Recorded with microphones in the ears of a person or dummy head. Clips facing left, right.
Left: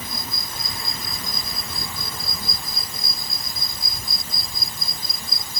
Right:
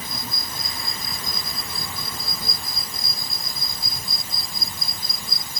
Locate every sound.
Only background noise.